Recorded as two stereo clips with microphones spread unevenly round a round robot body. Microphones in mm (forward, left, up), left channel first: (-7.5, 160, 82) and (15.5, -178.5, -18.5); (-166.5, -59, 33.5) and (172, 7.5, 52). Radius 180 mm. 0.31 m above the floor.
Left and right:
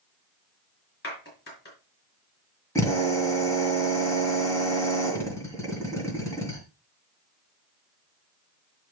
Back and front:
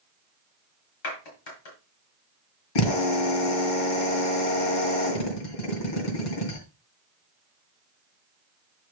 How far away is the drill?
About 3 m.